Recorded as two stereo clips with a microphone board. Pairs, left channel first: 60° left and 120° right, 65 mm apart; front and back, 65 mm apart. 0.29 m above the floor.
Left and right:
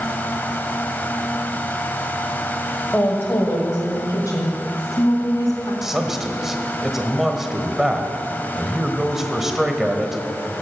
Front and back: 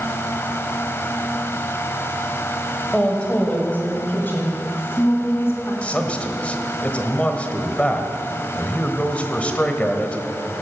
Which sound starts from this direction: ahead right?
A man speaking, at 5.8 s.